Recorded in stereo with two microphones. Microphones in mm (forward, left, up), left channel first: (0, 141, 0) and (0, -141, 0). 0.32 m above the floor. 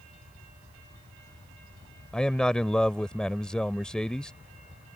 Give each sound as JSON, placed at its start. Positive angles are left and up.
{"t": 2.1, "sound": "a man speaking", "side_deg": 5}